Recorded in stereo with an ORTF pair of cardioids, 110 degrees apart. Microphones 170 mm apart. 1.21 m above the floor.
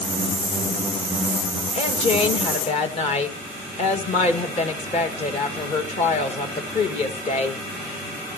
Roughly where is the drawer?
I don't hear a drawer.